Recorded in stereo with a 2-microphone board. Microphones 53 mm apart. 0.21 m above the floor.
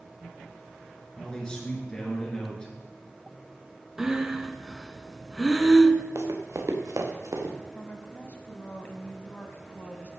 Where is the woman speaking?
30° left (ahead or behind), 1.3 m.